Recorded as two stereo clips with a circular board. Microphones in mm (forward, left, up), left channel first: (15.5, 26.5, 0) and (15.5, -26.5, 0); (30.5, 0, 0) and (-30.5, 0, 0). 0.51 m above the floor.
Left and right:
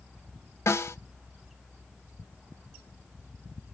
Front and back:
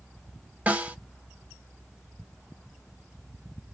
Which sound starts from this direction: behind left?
A snare drum, at 0.7 s.